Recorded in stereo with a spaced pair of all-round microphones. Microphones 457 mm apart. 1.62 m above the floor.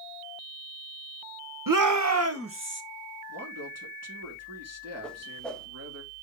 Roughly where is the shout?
Right.